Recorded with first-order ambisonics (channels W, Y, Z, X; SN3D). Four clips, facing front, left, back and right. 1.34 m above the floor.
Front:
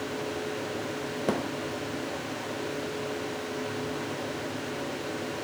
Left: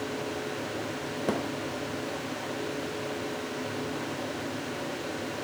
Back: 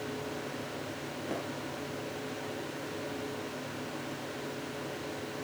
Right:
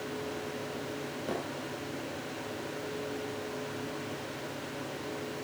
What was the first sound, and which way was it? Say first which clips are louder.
A thud: left 6 dB, front 9 dB; 30° left.